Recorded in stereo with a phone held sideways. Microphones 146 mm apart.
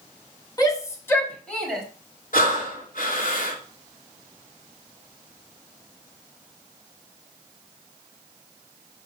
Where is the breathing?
70° left (ahead or behind), 3 m.